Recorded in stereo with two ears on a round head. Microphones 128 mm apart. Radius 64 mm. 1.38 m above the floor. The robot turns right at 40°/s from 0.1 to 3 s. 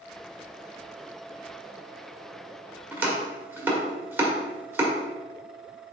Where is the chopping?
15° right (ahead or behind), 1.5 m.